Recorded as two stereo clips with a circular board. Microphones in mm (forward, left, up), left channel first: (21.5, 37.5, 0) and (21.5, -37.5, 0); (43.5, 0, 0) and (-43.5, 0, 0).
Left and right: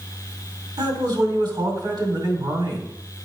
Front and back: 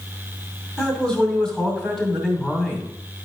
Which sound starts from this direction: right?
A man speaking, at 0.8 s.